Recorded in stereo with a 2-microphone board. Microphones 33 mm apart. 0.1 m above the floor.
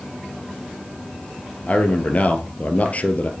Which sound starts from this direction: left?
A man speaking, at 1.7 s.